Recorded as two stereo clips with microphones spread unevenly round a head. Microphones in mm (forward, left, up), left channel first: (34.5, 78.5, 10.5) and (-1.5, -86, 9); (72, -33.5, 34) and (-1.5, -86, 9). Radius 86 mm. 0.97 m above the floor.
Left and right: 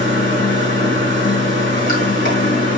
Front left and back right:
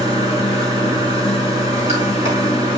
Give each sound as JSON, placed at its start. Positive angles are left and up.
{"t": 0.0, "sound": "running water", "azimuth_deg": 45, "distance_m": 3.5}